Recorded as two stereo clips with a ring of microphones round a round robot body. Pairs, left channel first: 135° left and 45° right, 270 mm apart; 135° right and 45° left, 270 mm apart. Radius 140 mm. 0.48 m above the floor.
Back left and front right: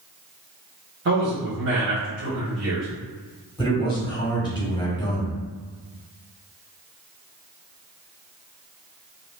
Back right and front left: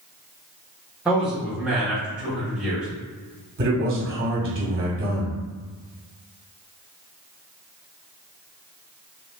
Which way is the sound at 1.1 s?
40° right.